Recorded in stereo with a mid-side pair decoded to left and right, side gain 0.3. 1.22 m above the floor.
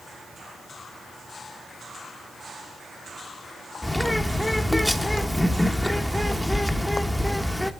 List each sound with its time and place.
3.8 s a bird: 10° left, 0.9 m